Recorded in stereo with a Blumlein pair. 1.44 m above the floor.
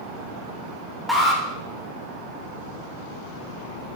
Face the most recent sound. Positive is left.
turn(degrees=0)